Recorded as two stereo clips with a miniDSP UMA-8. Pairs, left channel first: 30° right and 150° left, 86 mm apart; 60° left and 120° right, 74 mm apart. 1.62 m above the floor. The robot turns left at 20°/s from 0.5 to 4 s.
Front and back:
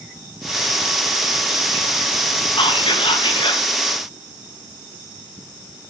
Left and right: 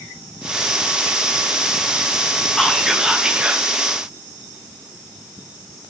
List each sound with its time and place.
2.6 s whispering: 25° right, 2 m; by 3.6 s 50° right, 2 m